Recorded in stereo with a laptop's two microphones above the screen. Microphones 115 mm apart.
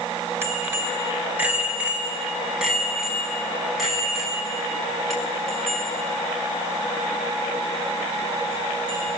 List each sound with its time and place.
0.4 s a bicycle bell: 20° right (ahead or behind), 4.5 m; by 9.1 s 10° left (ahead or behind), 10.5 m